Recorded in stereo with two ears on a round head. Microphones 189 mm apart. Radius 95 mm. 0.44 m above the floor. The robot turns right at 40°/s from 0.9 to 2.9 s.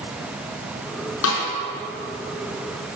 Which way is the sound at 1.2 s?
65° left (ahead or behind).